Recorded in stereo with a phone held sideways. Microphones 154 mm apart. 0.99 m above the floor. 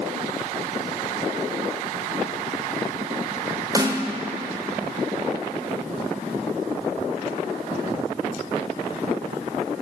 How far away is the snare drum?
About 0.7 m.